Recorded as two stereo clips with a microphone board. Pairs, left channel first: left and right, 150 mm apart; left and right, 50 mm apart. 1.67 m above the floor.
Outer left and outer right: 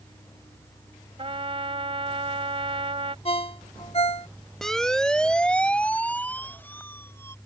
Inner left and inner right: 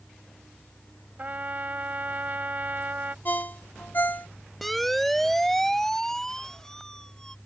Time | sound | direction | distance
1.2 | a trumpet | 40° right (ahead or behind) | ?
3.2 | a ringtone | 40° left (ahead or behind) | ?
4.6 | a siren | centre (ahead or behind) | ?